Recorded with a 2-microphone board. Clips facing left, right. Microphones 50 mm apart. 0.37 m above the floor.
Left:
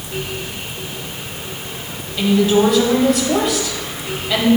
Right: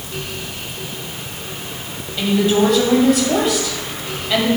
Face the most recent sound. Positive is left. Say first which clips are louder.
# left 2 dB
turn(degrees=0)  # may be behind; listen again after turning